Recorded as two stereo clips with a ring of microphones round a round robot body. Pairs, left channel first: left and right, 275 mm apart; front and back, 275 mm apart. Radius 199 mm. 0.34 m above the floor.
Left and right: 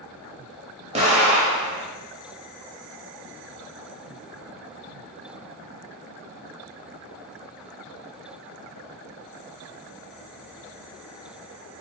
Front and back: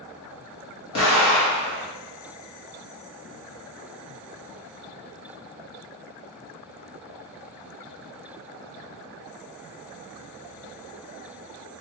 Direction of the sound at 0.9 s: 25° right.